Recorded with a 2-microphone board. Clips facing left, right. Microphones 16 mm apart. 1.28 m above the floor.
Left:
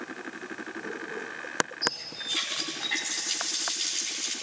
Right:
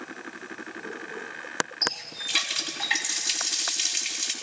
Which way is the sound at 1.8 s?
70° right (ahead or behind).